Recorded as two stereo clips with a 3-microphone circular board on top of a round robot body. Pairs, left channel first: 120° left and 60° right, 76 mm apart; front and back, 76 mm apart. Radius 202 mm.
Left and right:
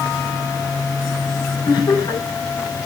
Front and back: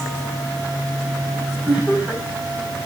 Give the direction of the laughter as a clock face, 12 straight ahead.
9 o'clock.